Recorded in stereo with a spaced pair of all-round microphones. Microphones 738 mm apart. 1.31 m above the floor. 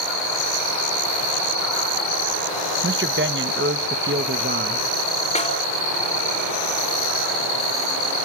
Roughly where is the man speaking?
Centre.